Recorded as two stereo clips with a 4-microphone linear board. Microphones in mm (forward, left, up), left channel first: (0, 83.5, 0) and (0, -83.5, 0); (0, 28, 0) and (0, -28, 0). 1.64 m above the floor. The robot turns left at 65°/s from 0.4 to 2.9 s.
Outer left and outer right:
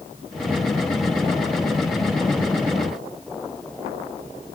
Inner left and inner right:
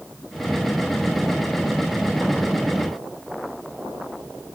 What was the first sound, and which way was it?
Only background noise.